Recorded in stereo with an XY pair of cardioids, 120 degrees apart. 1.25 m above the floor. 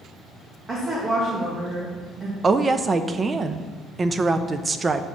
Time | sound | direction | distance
0.7 | a woman speaking | 30° right | 1.9 m
2.4 | a woman speaking | 25° right | 0.6 m